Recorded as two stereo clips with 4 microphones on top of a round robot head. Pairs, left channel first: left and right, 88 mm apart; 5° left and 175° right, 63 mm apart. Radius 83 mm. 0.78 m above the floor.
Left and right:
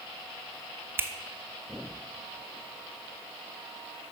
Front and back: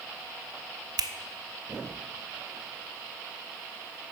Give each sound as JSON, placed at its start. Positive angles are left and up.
{"t": 1.0, "sound": "a finger snap", "azimuth_deg": -155, "distance_m": 0.8}